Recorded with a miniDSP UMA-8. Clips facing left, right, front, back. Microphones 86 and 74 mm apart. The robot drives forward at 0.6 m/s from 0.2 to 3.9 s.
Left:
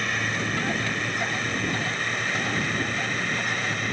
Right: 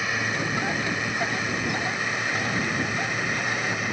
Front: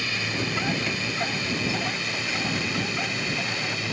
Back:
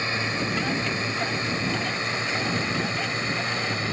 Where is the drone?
170° right.